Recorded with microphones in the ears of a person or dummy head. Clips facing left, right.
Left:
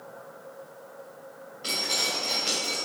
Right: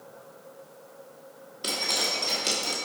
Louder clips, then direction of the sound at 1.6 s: Right 1 dB; 60° right (ahead or behind).